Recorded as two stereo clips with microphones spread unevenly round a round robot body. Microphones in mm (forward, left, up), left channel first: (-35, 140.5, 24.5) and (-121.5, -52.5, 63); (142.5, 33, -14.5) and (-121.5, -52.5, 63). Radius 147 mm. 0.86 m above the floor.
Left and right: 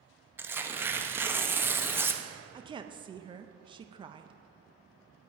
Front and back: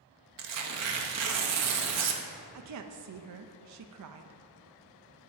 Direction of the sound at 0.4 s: 160° left.